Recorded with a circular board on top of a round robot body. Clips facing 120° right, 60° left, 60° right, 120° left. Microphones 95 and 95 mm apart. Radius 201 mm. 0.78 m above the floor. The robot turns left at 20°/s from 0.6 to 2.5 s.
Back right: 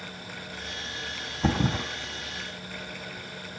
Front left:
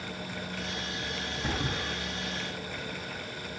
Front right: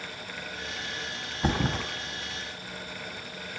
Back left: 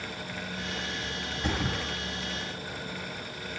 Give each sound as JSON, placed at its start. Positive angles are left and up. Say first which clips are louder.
{"t": 1.4, "sound": "a thud", "louder": "back right 8 dB, front right 4 dB", "azimuth_deg": -115, "distance_m": 3.0}